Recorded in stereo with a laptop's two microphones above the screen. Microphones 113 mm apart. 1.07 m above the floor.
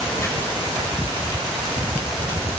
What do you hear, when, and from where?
0.2 s chopping: 30° left (ahead or behind), 5 m